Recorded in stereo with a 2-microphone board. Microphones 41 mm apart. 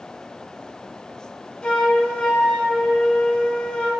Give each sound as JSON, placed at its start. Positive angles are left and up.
{"t": 1.6, "sound": "a flute", "side_deg": 20, "distance_m": 0.6}